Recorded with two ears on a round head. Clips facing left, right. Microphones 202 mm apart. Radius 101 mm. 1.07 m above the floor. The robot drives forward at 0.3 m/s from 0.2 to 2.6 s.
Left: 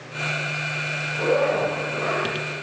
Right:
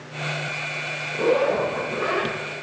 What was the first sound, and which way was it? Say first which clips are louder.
A zipper: right 1 dB; 45° right (ahead or behind).